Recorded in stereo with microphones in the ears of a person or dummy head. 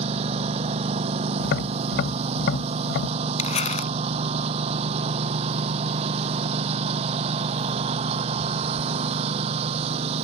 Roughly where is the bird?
No bird in this recording.